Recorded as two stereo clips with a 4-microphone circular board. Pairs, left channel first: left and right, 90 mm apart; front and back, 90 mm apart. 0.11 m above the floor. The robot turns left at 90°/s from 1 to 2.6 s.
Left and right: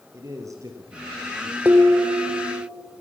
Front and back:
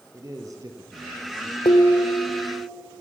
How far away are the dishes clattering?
About 2.5 m.